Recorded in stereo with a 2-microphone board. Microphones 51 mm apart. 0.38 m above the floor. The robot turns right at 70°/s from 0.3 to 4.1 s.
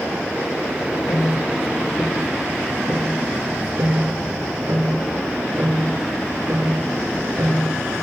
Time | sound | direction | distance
0.8 | ticking | 80° left | 5 m